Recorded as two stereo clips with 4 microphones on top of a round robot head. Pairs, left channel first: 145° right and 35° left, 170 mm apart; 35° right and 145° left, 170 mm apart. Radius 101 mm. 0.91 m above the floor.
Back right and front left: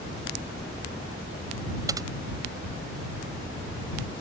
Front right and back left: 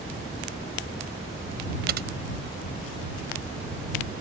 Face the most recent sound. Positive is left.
turn(degrees=110)